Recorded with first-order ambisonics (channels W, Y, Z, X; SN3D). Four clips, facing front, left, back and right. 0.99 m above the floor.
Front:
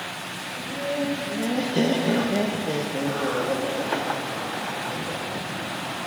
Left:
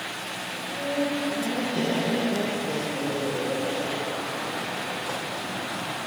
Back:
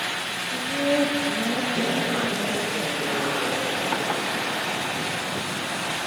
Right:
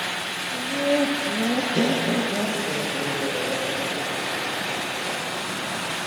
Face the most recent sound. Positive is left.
turn(degrees=10)